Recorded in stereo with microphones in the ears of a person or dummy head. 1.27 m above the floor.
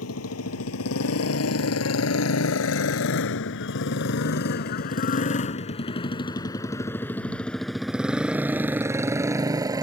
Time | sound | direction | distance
0.0 | a motorcycle | 85° left | ?